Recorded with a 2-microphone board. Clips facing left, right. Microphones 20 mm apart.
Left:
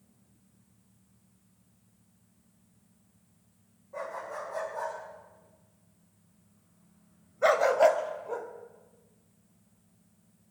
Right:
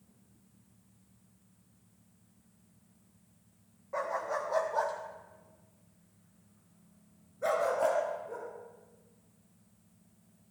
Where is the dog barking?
50° right (ahead or behind), 3.5 m; by 8.5 s 60° left (ahead or behind), 2 m.